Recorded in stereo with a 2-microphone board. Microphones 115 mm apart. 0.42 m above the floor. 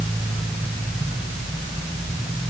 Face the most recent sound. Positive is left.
No sound to turn to.